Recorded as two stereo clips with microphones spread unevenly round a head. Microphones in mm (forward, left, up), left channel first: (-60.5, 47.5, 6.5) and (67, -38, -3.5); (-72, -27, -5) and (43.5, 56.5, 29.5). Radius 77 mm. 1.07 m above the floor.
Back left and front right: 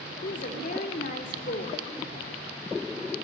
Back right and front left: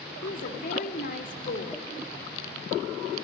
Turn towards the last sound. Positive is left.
turn(degrees=-170)